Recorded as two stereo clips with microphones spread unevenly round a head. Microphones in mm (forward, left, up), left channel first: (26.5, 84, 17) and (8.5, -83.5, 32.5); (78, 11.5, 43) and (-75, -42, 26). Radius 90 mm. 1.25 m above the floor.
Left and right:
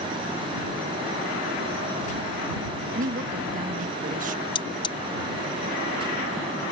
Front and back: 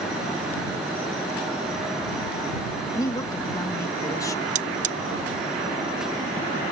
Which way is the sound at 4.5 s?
150° left.